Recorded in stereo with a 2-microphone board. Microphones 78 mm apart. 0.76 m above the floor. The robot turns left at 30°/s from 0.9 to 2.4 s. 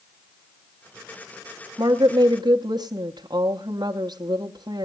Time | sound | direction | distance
1.8 | a woman speaking | 60° right (ahead or behind) | 1.0 m